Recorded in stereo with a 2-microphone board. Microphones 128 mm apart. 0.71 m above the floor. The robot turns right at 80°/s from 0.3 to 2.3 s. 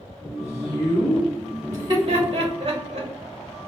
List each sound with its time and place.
0.4 s a woman speaking: 90° left, 1.7 m; by 1.3 s 160° left, 1.7 m
1.7 s laughter: 25° right (ahead or behind), 1.3 m; by 3.1 s 50° right (ahead or behind), 1.3 m